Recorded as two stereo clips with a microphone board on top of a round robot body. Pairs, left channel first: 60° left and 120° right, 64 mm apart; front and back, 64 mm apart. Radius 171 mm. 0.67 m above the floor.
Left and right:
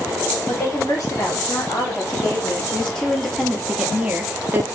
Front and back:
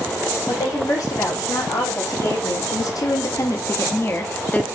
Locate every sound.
0.5 s a woman speaking: 20° left, 2.5 m; by 4.6 s 70° right, 1.6 m